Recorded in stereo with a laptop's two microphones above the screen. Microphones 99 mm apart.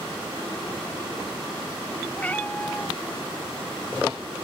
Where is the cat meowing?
15° left (ahead or behind).